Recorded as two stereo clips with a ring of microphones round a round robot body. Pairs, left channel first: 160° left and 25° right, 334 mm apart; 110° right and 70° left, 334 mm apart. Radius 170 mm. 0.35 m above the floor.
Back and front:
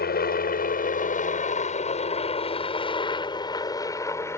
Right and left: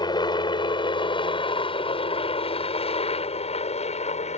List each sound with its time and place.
0.0 s a helicopter: 175° right; by 4.4 s 135° right